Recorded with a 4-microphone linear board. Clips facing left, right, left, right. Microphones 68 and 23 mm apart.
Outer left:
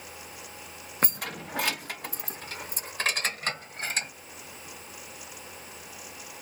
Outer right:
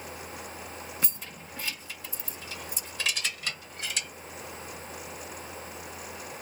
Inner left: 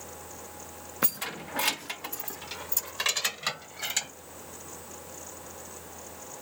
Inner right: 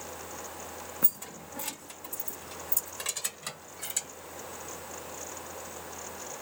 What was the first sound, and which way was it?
Keys jangling, 45° left (ahead or behind).